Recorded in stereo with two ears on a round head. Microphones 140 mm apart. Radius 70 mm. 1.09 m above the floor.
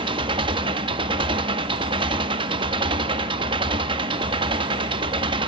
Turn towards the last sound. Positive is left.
turn(degrees=-30)  # may be behind; listen again after turning